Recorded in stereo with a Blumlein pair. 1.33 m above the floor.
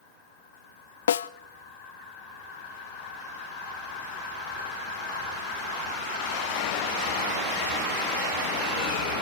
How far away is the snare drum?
About 0.5 m.